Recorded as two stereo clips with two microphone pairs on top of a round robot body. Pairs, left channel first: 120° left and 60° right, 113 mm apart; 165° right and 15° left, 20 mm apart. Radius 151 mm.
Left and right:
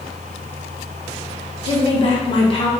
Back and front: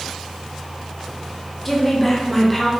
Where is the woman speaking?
120° left, 1.2 m.